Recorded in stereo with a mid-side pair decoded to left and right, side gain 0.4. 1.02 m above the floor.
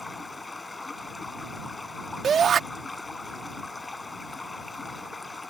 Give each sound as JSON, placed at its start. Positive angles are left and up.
{"t": 0.0, "sound": "running water", "azimuth_deg": 25}
{"t": 2.2, "sound": "a shout", "azimuth_deg": -55}